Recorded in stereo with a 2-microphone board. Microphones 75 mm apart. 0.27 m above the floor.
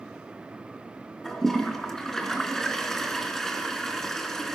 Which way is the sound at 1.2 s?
5° left (ahead or behind).